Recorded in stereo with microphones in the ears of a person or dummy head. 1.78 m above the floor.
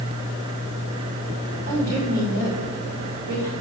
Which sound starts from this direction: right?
A woman speaking, at 1.7 s.